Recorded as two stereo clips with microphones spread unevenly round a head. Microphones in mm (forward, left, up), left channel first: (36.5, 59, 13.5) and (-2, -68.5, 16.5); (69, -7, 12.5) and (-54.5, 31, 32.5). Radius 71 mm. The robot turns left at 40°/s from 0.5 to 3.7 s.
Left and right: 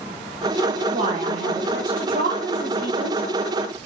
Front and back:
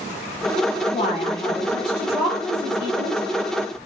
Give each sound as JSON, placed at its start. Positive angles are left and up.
{"t": 0.9, "sound": "a woman speaking", "azimuth_deg": -55, "distance_m": 1.1}